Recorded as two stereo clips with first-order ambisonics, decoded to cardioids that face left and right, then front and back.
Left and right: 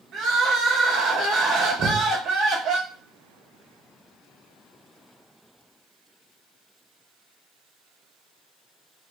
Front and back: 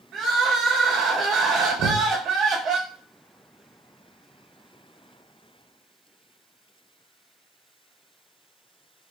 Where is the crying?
135° right, 0.8 m.